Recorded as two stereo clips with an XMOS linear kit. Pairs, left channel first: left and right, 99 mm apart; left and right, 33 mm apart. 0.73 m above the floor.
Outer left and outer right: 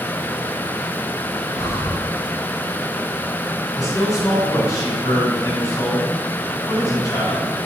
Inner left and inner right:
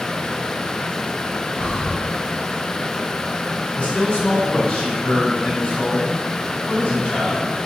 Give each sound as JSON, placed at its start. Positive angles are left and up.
{"t": 1.5, "sound": "breathing", "side_deg": 30, "distance_m": 1.0}
{"t": 3.8, "sound": "a man speaking", "side_deg": 35, "distance_m": 3.5}